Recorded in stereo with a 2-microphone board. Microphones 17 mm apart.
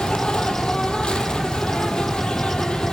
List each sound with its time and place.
0.0 s an insect: 70° left (ahead or behind), 2 m